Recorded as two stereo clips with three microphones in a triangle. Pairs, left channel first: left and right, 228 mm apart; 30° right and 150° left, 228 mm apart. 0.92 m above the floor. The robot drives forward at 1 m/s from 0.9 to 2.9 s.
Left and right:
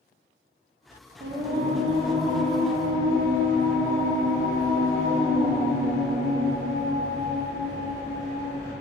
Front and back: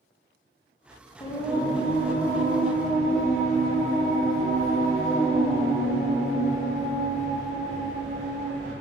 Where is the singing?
90° right, 0.6 m; by 8.7 s 165° right, 1.8 m.